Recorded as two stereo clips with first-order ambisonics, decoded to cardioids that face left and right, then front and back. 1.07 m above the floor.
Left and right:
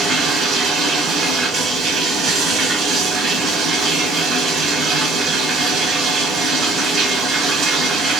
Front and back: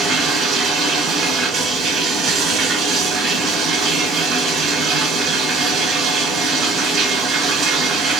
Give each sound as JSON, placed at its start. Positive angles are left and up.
{"t": 0.0, "sound": "running water", "azimuth_deg": -130, "distance_m": 1.2}